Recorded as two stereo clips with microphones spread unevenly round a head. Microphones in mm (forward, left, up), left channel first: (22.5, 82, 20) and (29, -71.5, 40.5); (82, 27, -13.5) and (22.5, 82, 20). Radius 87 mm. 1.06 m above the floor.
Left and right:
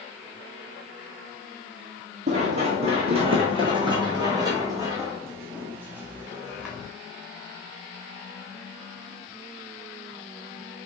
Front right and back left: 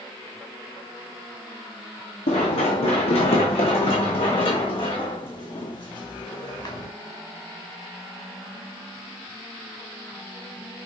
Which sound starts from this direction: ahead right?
Running footsteps, at 2.3 s.